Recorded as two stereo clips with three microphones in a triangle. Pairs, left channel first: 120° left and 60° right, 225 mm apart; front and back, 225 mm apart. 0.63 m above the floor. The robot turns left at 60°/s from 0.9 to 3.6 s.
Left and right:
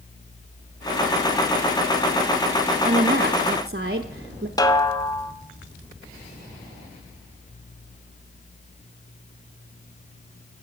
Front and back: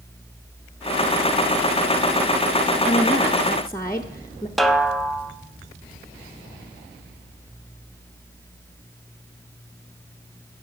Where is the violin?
I don't hear a violin.